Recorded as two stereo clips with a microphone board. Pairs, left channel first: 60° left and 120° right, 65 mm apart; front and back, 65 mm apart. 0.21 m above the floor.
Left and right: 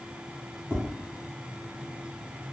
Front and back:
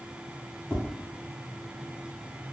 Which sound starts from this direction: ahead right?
Tapping, at 0.7 s.